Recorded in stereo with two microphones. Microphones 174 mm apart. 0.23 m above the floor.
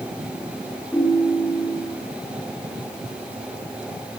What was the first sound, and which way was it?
A ringtone, 10° left (ahead or behind).